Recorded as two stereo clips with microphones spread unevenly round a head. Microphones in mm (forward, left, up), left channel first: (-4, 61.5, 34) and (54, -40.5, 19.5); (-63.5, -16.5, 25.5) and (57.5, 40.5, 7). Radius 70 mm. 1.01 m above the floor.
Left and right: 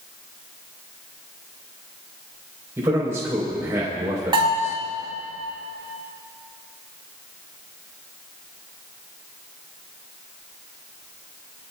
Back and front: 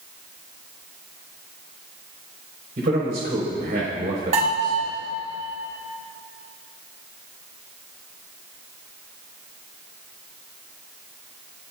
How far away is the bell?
About 6 m.